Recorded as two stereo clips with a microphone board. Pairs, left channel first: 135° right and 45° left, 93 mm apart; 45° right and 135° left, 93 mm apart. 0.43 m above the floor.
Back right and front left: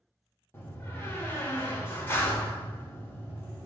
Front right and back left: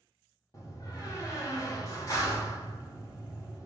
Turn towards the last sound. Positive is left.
turn(degrees=-80)